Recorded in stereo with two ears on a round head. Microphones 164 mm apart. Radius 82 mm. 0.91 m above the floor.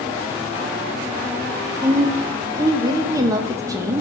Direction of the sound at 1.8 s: 15° right (ahead or behind).